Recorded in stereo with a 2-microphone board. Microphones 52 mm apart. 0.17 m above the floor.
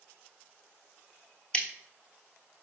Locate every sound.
1.5 s scissors: 20° left (ahead or behind), 0.9 m